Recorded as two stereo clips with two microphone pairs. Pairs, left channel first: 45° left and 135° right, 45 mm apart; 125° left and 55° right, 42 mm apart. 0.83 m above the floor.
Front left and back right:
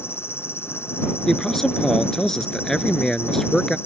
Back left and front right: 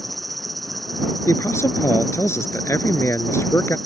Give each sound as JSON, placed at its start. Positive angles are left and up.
{"t": 0.0, "sound": "an insect", "azimuth_deg": 35}
{"t": 1.3, "sound": "a man speaking", "azimuth_deg": 125}